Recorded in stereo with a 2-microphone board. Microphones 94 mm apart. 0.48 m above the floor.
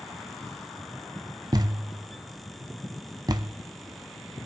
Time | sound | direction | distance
1.5 | a thud | 45° right (ahead or behind) | 0.5 m